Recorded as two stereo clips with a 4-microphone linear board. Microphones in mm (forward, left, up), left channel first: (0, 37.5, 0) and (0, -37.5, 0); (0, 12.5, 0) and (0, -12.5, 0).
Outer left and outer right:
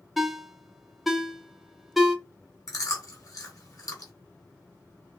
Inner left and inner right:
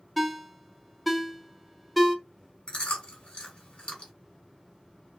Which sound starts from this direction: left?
Chewing, at 2.7 s.